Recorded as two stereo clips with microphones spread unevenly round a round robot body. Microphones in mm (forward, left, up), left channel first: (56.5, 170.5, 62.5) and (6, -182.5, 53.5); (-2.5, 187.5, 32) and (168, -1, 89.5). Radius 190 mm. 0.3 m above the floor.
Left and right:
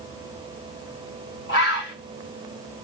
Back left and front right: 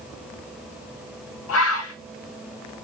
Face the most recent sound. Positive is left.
turn(degrees=145)